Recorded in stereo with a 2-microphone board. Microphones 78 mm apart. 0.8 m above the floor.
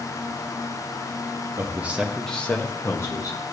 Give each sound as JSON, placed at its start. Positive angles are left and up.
{"t": 1.6, "sound": "a man speaking", "side_deg": -30, "distance_m": 0.8}